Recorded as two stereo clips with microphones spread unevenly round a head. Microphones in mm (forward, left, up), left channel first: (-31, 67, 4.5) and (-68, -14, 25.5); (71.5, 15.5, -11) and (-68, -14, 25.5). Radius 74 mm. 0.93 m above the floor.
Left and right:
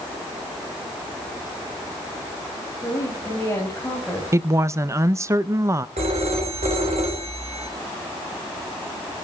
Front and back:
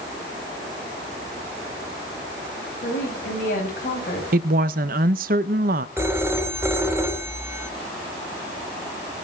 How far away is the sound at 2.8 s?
About 5.5 m.